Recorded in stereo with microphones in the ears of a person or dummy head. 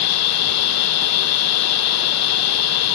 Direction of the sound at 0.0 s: 80° left.